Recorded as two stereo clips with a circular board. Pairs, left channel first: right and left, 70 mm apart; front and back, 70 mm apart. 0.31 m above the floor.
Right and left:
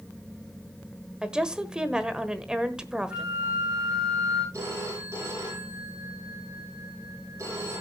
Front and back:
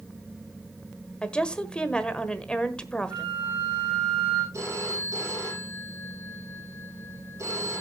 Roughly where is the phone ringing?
Behind left.